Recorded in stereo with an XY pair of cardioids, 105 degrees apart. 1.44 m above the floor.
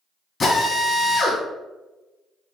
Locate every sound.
0.4 s a drill: 40° left, 1.9 m